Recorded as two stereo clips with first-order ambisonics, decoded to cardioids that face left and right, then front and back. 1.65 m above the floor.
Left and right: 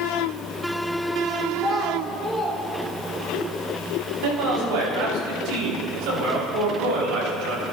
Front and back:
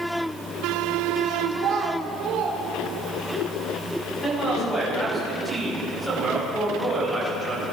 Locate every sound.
1.5 s a child speaking: 170° left, 1.3 m; by 3.4 s 165° right, 2 m
4.2 s a man speaking: 85° right, 5 m